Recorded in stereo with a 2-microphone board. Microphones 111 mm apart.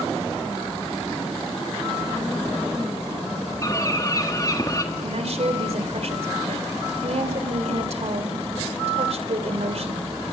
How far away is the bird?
About 1.5 m.